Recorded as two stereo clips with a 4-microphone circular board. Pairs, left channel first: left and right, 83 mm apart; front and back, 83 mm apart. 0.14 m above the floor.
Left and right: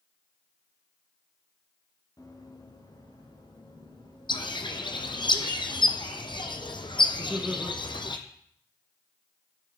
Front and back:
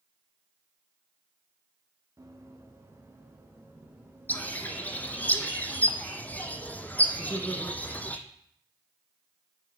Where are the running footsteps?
130° left, 3.5 m; by 5.3 s 105° left, 7 m.